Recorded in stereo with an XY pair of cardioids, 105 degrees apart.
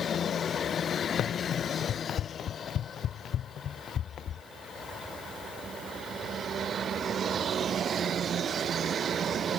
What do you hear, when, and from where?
1.2 s running footsteps: 60° left